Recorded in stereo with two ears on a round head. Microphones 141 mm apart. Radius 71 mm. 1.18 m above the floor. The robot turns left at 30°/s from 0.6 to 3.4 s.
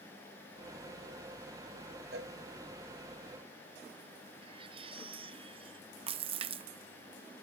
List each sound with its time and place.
2.1 s a cowbell: 75° right (ahead or behind); by 2.3 s 70° right (ahead or behind)
4.4 s a baby crying: 35° right (ahead or behind)
6.1 s a splash: 35° right (ahead or behind)